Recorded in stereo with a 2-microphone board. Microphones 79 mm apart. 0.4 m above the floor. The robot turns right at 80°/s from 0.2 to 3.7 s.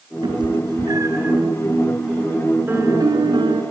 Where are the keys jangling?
No keys jangling in this recording.